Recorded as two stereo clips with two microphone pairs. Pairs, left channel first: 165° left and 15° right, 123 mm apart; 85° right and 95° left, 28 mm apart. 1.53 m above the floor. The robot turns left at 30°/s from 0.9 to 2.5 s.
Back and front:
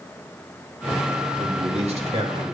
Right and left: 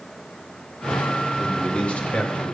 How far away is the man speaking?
About 3 m.